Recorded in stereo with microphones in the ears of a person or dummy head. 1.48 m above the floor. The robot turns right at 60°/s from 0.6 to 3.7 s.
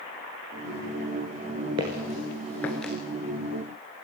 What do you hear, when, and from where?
1.8 s footsteps: 15° right (ahead or behind), 1.5 m; by 2.9 s centre (ahead or behind), 1.7 m